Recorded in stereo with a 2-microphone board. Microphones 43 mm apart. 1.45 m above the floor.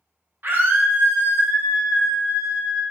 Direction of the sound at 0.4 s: 50° right (ahead or behind).